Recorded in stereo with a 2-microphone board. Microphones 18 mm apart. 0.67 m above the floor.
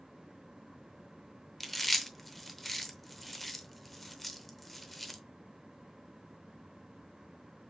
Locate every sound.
1.6 s chewing: 5° left (ahead or behind), 0.7 m